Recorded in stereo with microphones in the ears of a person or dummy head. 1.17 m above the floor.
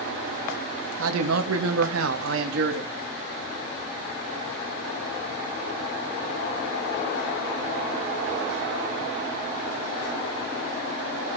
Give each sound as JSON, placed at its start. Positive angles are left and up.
{"t": 1.0, "sound": "a man speaking", "side_deg": -80, "distance_m": 1.2}